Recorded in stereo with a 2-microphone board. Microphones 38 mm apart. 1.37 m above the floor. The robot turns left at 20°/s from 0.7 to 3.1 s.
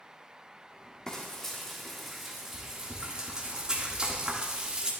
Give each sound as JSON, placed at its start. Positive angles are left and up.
{"t": 1.1, "sound": "frying", "azimuth_deg": 20, "distance_m": 1.9}